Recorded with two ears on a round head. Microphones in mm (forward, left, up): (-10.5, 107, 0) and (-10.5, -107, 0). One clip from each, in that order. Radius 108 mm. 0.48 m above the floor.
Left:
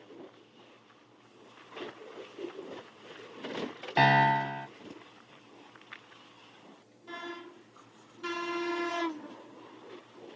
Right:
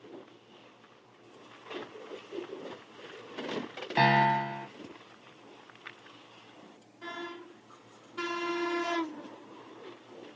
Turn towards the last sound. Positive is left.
turn(degrees=15)  # may be behind; listen again after turning